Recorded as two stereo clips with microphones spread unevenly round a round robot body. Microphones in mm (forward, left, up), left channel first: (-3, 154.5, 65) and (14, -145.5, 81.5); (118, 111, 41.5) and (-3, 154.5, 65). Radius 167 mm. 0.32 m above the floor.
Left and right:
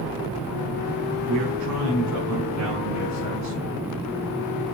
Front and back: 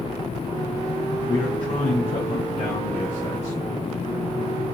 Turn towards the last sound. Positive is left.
turn(degrees=-50)